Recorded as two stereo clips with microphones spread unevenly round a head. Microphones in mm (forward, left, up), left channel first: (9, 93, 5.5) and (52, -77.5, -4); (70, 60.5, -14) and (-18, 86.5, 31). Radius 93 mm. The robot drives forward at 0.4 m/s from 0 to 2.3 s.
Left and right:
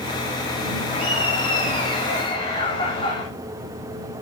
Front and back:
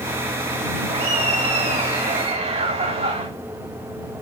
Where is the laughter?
165° left, 3.5 m.